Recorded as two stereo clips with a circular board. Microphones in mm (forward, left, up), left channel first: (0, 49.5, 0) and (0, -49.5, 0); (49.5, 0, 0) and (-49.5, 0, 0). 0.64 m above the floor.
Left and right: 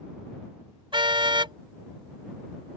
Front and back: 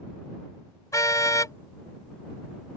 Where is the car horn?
55° right.